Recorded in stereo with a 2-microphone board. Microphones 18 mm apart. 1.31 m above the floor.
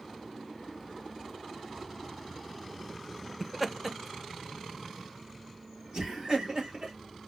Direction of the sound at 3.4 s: 5° left (ahead or behind).